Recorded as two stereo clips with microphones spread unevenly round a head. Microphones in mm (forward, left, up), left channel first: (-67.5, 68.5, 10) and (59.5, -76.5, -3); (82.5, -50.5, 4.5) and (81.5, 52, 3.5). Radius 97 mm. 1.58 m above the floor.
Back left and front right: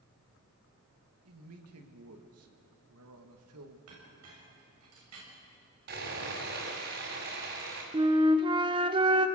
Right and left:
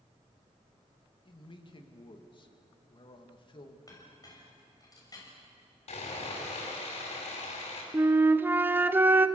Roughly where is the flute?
Ahead.